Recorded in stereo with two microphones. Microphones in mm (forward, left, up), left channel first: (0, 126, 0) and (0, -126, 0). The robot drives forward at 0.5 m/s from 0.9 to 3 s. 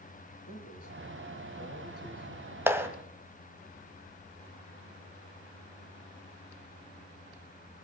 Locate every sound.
0.5 s a man speaking: 60° left (ahead or behind), 5.5 m; by 2.6 s 70° left (ahead or behind), 5.5 m
2.7 s a clap: 10° right (ahead or behind), 1.1 m